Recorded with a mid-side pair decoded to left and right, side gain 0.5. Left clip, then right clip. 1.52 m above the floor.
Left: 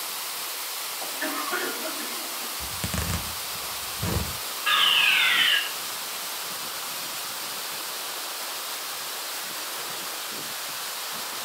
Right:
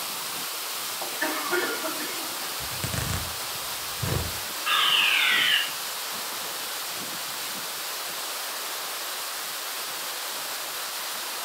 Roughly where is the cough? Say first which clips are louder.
Right 1 dB; ahead.